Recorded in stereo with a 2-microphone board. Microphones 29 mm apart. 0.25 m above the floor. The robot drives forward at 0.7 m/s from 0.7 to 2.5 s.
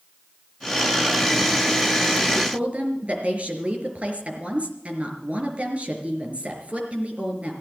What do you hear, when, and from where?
2.4 s a woman speaking: 50° right (ahead or behind), 4 m